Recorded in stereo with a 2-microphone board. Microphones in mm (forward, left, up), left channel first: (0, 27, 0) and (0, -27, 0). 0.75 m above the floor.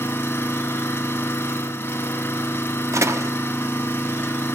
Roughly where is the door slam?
Right.